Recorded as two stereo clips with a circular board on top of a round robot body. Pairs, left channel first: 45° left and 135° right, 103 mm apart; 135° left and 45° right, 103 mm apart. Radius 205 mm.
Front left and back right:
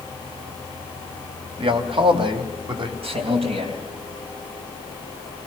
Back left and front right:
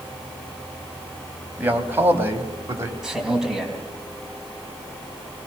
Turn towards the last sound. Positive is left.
turn(degrees=-130)